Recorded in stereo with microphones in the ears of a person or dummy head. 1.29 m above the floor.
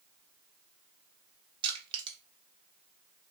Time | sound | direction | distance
1.6 | crushing | 30° right (ahead or behind) | 0.9 m